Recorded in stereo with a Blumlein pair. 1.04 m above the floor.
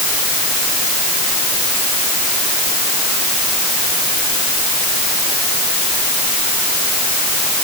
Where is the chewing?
I don't hear chewing.